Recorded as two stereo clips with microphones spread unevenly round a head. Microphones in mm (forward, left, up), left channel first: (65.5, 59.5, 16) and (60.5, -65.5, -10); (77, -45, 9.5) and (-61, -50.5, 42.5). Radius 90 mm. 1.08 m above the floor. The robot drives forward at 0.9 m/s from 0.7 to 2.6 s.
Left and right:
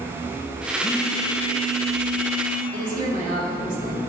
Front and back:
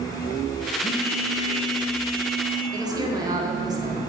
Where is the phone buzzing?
60° left, 0.6 m; by 2.6 s 165° left, 1.5 m.